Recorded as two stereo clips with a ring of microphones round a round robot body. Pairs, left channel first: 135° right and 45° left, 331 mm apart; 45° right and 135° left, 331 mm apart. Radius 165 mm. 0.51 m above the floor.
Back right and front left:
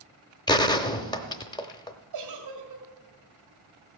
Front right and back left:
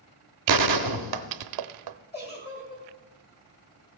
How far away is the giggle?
About 2.5 m.